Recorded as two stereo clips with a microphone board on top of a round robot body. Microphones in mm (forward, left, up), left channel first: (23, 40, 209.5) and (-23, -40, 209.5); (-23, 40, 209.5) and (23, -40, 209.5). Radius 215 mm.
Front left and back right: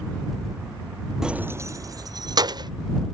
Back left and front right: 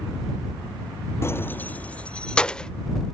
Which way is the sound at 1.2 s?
160° left.